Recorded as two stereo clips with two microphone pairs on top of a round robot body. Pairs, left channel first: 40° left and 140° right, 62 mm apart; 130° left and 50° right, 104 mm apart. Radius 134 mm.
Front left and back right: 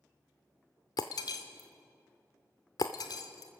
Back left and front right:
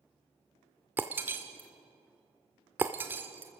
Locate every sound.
1.0 s breaking glass: 25° left, 0.6 m